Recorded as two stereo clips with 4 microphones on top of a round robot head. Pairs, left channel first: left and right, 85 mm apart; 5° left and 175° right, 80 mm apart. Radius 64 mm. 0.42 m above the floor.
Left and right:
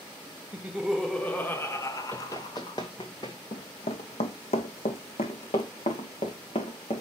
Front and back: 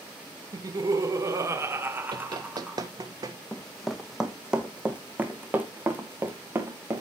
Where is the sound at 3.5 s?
85° left, 1.1 m; by 7.0 s 125° left, 2.5 m.